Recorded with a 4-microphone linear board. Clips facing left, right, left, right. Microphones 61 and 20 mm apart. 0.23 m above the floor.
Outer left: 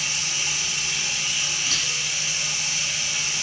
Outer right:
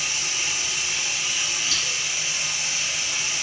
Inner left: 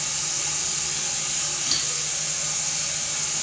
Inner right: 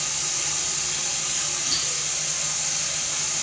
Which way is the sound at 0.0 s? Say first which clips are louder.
Even, inner right 1 dB; 45° right (ahead or behind).